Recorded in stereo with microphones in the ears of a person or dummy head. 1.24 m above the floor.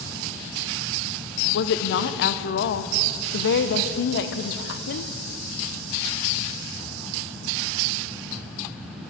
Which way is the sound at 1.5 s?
50° left (ahead or behind).